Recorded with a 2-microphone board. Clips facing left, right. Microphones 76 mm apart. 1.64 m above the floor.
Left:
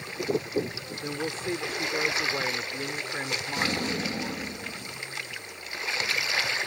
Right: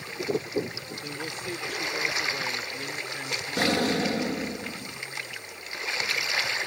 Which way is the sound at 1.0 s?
35° left (ahead or behind).